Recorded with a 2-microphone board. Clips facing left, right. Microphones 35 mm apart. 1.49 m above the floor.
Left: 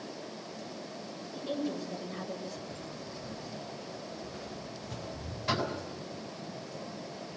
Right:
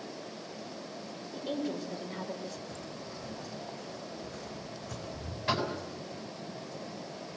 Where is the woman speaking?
50° right (ahead or behind), 5 m.